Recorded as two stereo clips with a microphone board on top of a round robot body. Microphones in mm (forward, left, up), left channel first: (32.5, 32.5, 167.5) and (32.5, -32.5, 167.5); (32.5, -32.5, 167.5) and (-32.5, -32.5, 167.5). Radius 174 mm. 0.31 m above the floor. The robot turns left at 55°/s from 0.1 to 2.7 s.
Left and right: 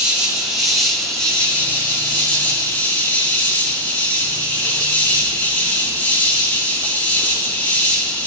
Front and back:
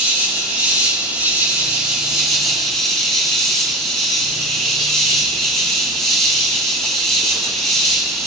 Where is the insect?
145° right, 2.0 m; by 8.3 s 70° left, 2.0 m.